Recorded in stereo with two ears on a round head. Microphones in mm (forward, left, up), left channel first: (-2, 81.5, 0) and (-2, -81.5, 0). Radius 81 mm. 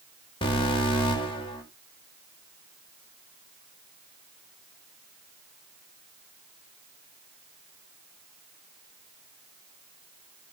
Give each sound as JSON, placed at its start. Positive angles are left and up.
{"t": 0.4, "sound": "an alarm", "side_deg": 25, "distance_m": 2.0}